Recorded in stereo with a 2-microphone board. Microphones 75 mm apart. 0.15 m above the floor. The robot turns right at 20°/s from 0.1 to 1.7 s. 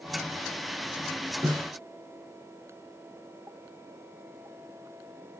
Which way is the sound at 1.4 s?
60° right (ahead or behind).